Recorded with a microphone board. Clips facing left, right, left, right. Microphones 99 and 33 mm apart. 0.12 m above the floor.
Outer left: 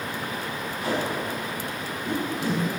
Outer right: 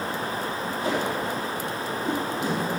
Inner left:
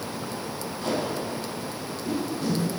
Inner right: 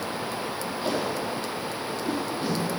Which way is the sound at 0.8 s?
25° right (ahead or behind).